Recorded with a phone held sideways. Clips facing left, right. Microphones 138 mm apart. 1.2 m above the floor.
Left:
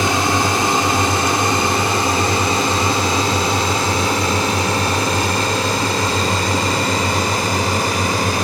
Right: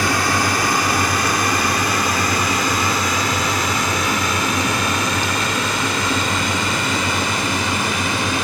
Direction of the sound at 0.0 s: 20° left (ahead or behind).